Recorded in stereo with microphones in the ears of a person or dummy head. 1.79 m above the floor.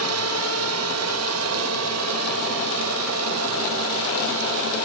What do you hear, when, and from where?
0.0 s a drone: 80° right; by 4.8 s 85° right